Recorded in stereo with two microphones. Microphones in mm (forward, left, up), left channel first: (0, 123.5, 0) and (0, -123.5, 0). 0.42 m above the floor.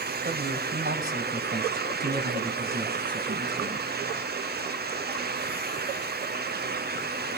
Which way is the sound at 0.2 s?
40° right (ahead or behind).